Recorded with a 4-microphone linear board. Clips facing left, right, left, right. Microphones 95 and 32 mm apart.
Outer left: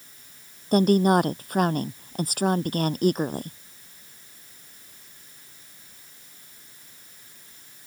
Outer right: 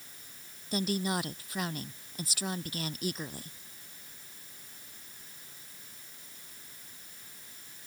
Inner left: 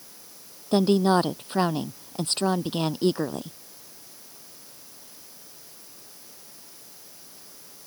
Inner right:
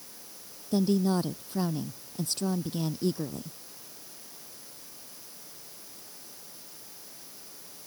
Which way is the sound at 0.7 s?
50° left (ahead or behind).